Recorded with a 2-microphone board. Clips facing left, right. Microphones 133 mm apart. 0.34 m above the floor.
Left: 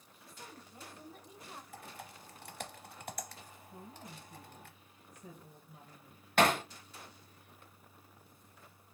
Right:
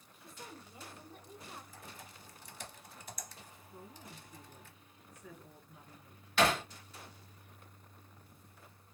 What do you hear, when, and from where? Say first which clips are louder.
0.2 s a woman speaking: right 2 dB; 25° right (ahead or behind), 1.2 m; by 1.6 s 15° left (ahead or behind), 1.4 m
1.7 s typing on a keyboard: left 3 dB; 65° left (ahead or behind), 0.7 m
3.7 s a woman speaking: left 2 dB; 40° left (ahead or behind), 2.0 m
6.4 s hammering: left 2 dB; 55° left (ahead or behind), 1.0 m